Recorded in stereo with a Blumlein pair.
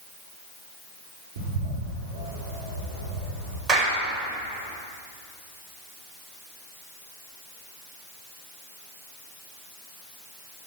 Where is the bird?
55° right, 4.5 m.